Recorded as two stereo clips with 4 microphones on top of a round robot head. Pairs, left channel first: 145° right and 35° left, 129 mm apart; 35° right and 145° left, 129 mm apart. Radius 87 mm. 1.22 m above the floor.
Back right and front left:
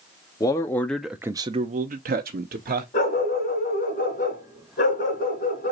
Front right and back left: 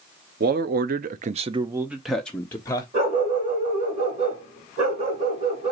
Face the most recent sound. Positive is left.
turn(degrees=-175)